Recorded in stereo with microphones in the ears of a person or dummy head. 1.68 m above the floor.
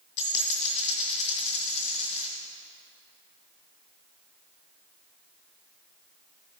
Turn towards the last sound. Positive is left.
turn(degrees=35)  # may be behind; listen again after turning